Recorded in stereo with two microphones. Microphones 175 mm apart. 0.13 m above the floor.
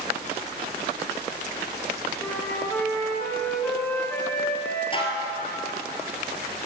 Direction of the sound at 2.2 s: 10° left (ahead or behind).